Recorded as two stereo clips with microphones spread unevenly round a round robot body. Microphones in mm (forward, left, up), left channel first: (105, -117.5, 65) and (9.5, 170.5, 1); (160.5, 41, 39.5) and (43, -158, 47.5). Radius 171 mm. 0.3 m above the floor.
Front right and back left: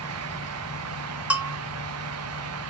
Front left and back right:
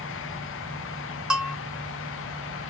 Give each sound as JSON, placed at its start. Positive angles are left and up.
{"t": 1.3, "sound": "a bell", "azimuth_deg": 155, "distance_m": 0.6}